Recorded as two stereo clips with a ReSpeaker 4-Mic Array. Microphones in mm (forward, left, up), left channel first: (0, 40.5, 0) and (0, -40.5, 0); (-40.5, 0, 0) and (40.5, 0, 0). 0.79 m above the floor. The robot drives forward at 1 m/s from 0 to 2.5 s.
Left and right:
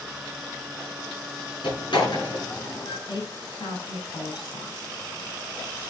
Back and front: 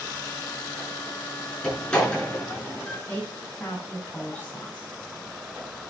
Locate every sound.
1.6 s a door slam: 100° left, 7.5 m; by 3.0 s 105° left, 8 m
3.1 s a woman speaking: 110° left, 7.5 m